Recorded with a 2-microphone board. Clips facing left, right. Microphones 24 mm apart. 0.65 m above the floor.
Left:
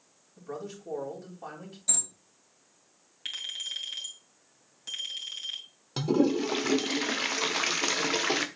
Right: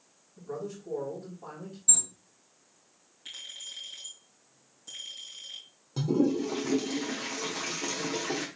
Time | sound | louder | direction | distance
0.4 | a man speaking | right 1 dB | 75° left (ahead or behind) | 3.5 m
1.9 | an alarm | even | 80° left | 3 m
3.2 | a clink | left 7 dB | 80° left | 2.5 m
6.0 | a toilet flushing | left 1 dB | 65° left (ahead or behind) | 1.0 m